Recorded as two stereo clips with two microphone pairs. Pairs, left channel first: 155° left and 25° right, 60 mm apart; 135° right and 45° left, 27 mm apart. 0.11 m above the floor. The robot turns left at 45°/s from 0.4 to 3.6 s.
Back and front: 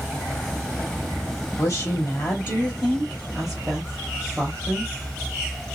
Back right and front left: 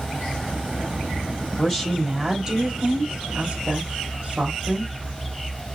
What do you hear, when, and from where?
1.6 s a woman speaking: 145° left, 3 m; by 4.9 s 55° left, 3 m